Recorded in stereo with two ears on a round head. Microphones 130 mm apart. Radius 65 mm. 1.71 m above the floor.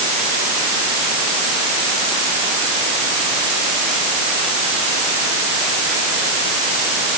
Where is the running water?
No running water in this recording.